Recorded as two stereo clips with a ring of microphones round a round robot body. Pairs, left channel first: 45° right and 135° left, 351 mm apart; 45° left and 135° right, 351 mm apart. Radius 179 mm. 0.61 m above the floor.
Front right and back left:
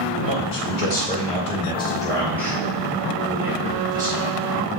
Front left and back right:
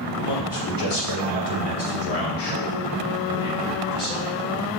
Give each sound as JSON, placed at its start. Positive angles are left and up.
{"t": 0.2, "sound": "a man speaking", "azimuth_deg": 5, "distance_m": 2.0}